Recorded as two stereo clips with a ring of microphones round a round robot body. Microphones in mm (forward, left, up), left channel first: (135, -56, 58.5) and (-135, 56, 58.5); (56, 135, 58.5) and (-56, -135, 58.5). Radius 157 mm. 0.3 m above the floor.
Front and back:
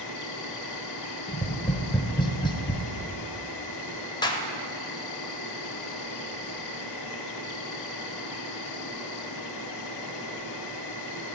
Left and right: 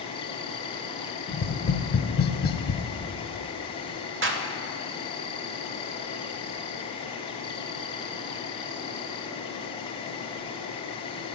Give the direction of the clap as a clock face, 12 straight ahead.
3 o'clock.